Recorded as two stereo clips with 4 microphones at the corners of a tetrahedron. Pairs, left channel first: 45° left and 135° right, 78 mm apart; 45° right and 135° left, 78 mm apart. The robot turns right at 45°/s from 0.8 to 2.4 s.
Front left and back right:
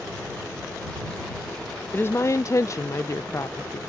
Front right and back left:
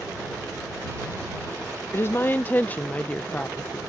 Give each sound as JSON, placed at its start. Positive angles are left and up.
{"t": 1.9, "sound": "a woman speaking", "azimuth_deg": -10}